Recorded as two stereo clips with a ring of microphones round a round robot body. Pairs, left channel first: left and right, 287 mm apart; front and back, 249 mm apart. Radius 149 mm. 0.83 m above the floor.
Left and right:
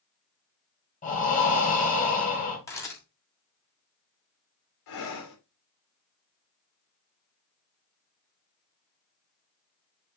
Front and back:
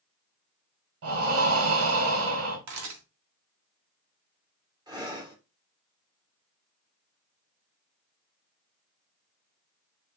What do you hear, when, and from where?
1.0 s breathing: 155° left, 3.5 m
2.7 s a camera shutter: 170° left, 3.5 m
4.9 s breathing: 105° left, 3.5 m